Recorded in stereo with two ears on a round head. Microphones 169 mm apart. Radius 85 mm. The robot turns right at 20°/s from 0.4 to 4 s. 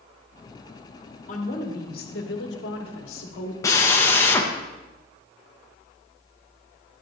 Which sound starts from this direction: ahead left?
A woman speaking, at 1.3 s.